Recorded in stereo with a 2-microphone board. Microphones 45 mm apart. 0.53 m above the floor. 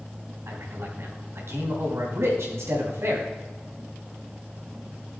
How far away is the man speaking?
About 3.5 m.